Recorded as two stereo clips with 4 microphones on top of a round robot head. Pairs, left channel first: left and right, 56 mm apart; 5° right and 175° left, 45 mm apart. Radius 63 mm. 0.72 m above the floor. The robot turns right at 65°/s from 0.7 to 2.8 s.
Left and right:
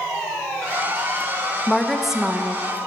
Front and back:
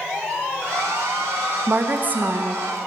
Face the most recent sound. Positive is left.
turn(degrees=-125)